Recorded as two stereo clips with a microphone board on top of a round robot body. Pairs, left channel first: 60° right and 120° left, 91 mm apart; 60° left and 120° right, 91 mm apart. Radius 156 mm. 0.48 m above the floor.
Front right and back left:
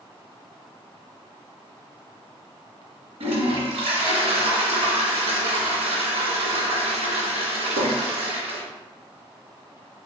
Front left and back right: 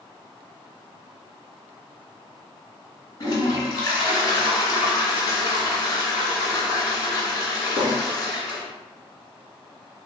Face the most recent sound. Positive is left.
turn(degrees=115)